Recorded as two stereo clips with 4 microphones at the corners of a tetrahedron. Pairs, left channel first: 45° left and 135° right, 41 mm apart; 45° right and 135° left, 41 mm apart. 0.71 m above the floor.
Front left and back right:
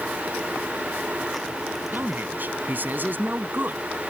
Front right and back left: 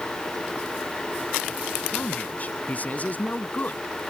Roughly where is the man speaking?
Right.